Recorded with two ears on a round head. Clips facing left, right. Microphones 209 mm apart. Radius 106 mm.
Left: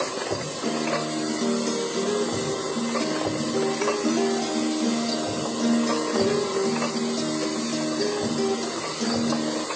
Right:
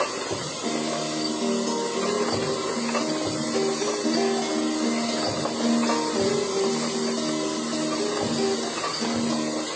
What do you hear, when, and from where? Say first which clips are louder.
0.6 s a guitar: left 1 dB; 10° left (ahead or behind), 2.5 m